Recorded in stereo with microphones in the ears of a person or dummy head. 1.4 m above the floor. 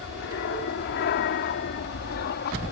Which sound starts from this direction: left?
An aircraft, at 0.0 s.